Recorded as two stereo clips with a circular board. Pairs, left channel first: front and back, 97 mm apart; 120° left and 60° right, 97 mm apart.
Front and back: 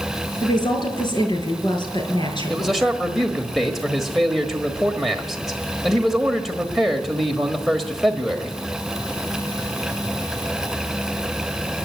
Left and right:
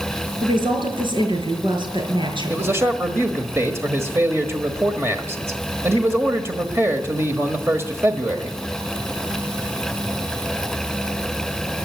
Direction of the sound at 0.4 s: 35° right.